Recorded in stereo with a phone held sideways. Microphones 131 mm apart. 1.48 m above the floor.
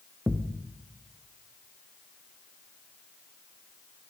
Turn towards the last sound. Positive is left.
turn(degrees=-10)  # may be behind; listen again after turning